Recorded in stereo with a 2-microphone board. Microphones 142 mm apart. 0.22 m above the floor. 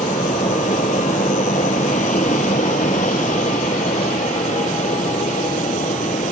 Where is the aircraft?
65° left (ahead or behind).